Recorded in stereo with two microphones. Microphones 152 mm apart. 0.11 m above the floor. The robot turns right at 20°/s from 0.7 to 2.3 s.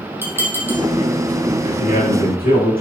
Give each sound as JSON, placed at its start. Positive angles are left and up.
{"t": 0.2, "sound": "dishes clattering", "side_deg": -15, "distance_m": 3.0}
{"t": 1.6, "sound": "a man speaking", "side_deg": 70, "distance_m": 5.0}